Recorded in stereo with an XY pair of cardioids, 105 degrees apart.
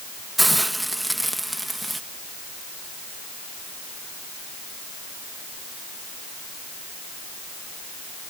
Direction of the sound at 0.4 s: 5° right.